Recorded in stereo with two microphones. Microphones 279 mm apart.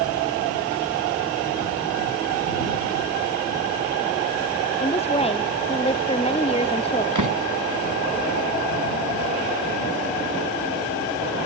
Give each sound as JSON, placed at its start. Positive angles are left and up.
{"t": 4.8, "sound": "a woman speaking", "side_deg": 20}
{"t": 7.2, "sound": "a door slam", "side_deg": -80}